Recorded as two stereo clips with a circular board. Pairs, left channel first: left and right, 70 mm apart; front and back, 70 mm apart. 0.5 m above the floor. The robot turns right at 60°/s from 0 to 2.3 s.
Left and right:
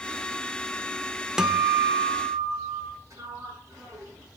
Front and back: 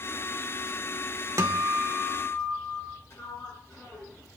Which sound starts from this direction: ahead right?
A sliding door, at 3.1 s.